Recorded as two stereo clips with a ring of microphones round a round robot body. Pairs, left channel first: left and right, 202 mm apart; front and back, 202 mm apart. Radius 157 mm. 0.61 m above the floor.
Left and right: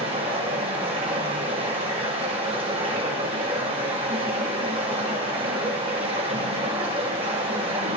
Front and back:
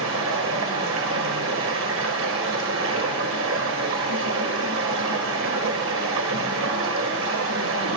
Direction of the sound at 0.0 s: 160° right.